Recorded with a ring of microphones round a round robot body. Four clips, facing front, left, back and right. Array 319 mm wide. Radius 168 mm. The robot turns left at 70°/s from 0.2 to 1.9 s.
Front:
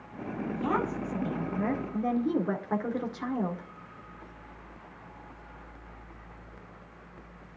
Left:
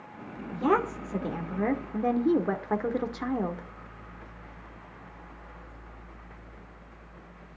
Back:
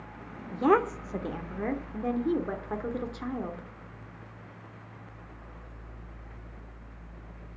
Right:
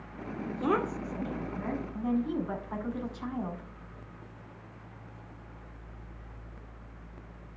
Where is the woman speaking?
175° right, 2 m; by 3.7 s 85° left, 2 m.